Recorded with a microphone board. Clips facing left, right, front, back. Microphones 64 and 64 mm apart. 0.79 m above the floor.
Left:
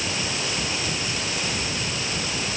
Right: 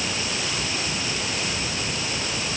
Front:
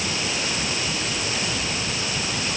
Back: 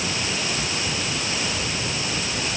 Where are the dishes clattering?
I don't hear dishes clattering.